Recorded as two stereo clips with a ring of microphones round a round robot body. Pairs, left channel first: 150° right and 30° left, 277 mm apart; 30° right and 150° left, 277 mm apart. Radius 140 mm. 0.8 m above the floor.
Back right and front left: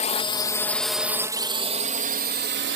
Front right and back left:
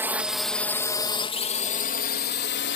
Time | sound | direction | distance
0.0 | a drone | 140° right | ?